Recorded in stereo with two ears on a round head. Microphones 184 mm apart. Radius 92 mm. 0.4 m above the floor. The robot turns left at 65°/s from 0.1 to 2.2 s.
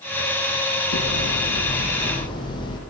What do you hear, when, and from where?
0.9 s hammering: 105° left, 7.5 m; by 2.8 s 20° left, 7.5 m